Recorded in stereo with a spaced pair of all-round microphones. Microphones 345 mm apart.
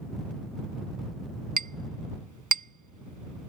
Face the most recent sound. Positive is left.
turn(degrees=-60)  # may be behind; listen again after turning